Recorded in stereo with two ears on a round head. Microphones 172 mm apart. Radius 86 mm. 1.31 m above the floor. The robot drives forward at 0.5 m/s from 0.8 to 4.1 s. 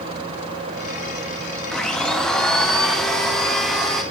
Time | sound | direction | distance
1.7 | a blender | 5° left (ahead or behind) | 0.9 m